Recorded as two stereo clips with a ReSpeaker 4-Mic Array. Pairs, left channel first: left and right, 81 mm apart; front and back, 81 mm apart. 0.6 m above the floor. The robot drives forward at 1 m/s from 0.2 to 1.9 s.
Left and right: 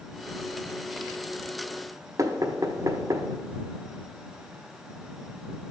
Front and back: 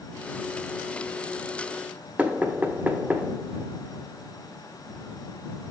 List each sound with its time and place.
2.2 s knocking: 115° right, 0.7 m